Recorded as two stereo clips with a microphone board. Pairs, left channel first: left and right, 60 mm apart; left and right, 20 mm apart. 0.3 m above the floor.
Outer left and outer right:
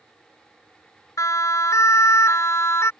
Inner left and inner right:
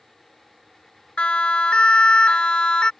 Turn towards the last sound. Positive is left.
turn(degrees=50)  # may be behind; listen again after turning